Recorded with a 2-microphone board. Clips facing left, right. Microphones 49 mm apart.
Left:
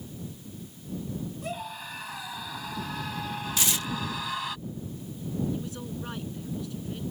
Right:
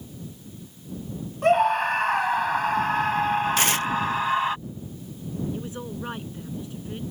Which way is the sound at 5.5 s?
25° right (ahead or behind).